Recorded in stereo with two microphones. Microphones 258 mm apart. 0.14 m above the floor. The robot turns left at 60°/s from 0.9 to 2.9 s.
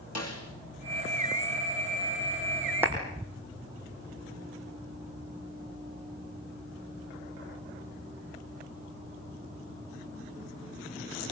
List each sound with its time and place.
0.1 s a snare drum: 75° left (ahead or behind), 4 m
2.8 s a clap: 5° right (ahead or behind), 4 m; by 2.9 s 10° right (ahead or behind), 4 m